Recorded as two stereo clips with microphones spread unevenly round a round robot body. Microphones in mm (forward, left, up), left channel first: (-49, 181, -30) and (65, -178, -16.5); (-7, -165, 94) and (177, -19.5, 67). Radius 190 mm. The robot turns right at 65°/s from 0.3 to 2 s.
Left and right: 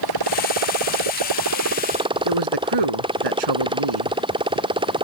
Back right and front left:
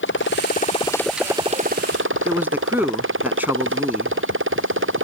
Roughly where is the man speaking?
Ahead right.